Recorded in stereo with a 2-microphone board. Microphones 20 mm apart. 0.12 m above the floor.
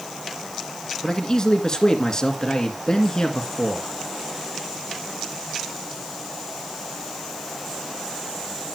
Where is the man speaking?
35° left (ahead or behind), 2 m.